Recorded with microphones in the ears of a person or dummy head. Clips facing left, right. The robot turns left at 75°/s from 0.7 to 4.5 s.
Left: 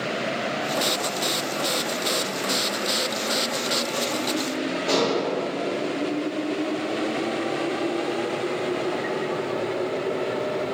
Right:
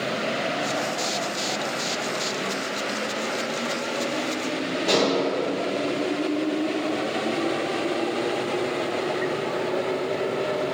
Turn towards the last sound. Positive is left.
turn(degrees=-10)  # may be behind; listen again after turning